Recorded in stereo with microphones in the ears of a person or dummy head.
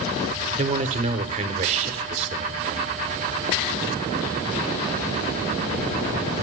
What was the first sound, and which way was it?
A man speaking, 35° right (ahead or behind).